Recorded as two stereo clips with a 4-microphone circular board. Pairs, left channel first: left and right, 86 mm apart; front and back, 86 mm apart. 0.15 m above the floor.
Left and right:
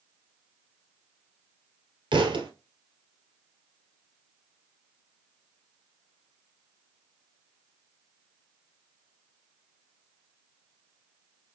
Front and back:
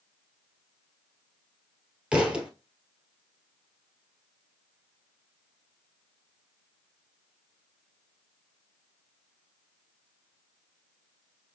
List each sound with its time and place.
2.1 s a thud: 105° right, 1.6 m